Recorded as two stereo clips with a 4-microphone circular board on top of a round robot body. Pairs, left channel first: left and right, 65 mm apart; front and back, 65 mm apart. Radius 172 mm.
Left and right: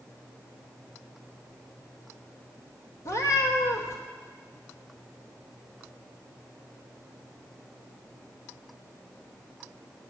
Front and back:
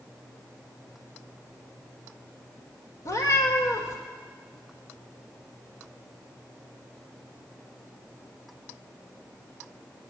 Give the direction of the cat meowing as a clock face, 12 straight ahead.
11 o'clock.